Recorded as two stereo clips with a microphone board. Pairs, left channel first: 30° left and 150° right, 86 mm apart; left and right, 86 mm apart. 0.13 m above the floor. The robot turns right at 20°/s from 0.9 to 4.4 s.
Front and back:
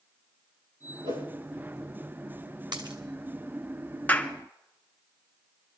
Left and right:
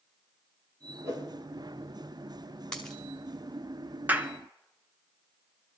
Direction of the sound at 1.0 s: 140° right.